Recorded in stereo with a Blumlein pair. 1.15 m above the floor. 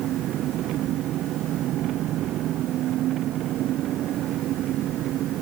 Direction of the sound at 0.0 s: 35° right.